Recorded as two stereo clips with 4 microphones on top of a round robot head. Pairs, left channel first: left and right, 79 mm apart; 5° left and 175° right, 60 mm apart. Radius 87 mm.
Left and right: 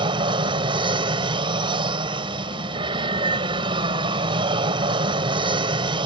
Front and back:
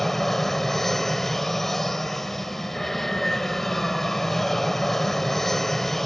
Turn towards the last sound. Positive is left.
turn(degrees=-80)